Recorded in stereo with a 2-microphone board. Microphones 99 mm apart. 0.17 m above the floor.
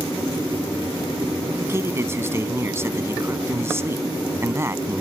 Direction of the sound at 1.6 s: 25° right (ahead or behind).